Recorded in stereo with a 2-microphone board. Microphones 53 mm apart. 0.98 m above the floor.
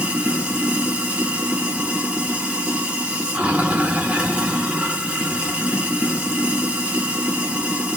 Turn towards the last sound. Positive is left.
turn(degrees=-25)  # may be behind; listen again after turning